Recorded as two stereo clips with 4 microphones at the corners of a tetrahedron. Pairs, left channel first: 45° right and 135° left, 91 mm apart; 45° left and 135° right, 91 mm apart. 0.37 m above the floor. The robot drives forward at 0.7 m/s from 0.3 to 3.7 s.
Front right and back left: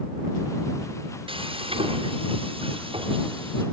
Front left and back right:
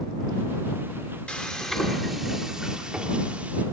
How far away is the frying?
About 1.8 m.